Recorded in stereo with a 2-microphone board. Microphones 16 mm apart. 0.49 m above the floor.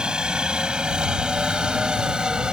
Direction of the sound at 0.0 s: 65° right (ahead or behind).